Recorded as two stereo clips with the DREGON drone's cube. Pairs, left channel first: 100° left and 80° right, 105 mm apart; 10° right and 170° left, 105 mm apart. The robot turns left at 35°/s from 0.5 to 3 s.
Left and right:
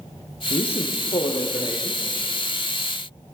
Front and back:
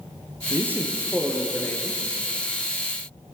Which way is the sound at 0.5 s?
105° left.